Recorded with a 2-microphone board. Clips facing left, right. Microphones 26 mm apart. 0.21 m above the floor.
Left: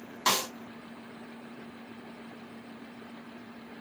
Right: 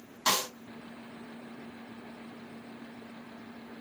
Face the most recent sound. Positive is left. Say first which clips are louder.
# left 1 dB
turn(degrees=20)  # may be behind; listen again after turning